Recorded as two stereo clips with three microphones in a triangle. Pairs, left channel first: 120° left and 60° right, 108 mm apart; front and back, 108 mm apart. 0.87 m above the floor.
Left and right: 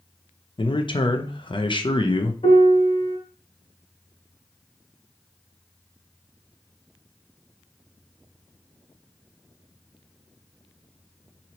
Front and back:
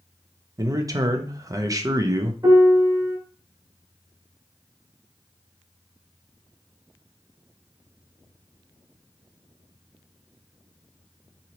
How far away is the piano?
About 1.2 m.